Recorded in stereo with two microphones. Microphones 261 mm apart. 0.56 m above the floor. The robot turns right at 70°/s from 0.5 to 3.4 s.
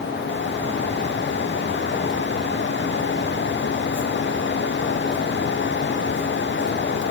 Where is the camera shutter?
I don't hear a camera shutter.